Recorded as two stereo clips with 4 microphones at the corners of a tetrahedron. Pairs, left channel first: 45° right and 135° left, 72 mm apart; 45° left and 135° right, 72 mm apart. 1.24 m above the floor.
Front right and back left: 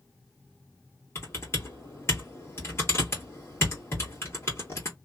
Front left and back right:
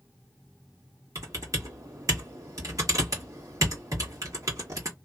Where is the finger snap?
No finger snap in this recording.